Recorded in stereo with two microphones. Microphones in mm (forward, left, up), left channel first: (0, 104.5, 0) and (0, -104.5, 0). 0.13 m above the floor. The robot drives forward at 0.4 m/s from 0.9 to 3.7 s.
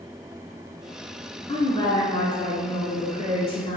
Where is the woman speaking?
20° left (ahead or behind), 1.4 m; by 3.8 s 25° left (ahead or behind), 1.3 m.